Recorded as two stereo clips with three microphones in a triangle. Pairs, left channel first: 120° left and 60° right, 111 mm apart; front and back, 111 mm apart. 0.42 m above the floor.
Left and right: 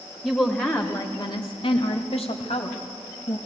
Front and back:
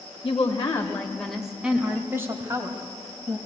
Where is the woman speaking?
35° left, 1.5 m; by 3.4 s 130° left, 2.5 m.